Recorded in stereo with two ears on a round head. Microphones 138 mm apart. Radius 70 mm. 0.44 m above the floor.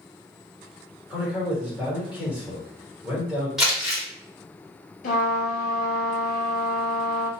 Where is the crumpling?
5° right (ahead or behind), 1.3 m.